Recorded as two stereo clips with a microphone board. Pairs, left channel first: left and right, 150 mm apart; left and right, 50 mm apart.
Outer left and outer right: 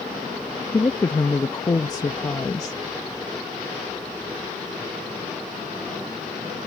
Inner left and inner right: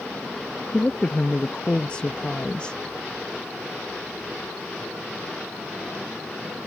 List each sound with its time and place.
0.7 s a woman speaking: 25° left (ahead or behind)